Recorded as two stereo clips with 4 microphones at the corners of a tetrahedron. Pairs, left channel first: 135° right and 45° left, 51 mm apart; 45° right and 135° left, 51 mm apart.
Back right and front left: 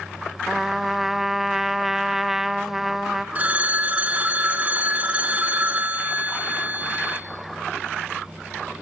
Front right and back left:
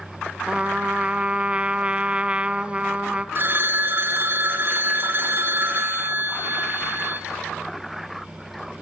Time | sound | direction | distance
0.5 | a trumpet | 120° left | 0.5 m
3.4 | a phone ringing | 95° left | 1.5 m